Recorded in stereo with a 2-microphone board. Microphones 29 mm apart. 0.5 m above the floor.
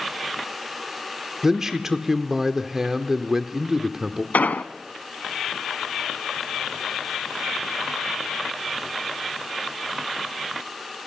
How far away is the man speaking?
About 1.0 m.